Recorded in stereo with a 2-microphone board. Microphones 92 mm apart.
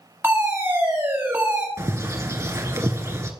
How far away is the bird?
About 0.9 m.